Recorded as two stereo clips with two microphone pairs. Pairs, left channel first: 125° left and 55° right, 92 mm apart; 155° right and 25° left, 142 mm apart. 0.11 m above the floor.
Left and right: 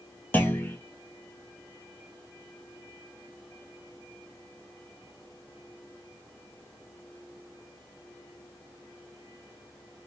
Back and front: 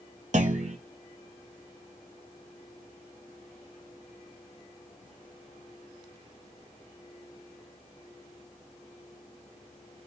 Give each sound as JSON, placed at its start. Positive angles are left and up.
{"t": 0.3, "sound": "a clunk", "azimuth_deg": 55, "distance_m": 0.6}